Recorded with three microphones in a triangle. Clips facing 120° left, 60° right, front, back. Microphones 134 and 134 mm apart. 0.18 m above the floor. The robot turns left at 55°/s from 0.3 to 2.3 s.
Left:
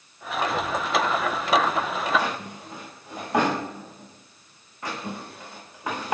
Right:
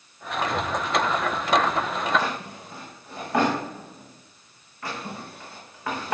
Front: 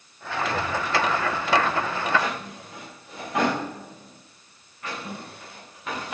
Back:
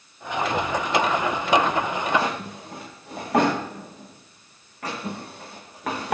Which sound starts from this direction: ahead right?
A child speaking, at 0.4 s.